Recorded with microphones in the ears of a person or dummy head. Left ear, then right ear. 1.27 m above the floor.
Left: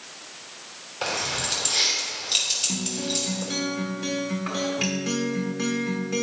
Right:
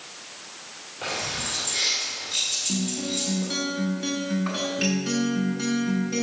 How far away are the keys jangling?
About 3 m.